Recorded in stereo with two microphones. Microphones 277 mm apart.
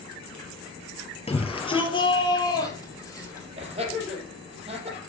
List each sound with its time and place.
1.3 s a shout: 20° left (ahead or behind), 3 m; by 3.5 s 10° left (ahead or behind), 5.5 m
3.6 s laughter: 20° right (ahead or behind), 4.5 m